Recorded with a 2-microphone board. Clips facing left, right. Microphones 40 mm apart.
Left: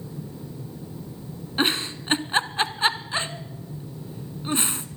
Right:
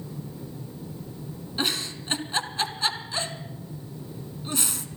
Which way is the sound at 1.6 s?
35° left (ahead or behind).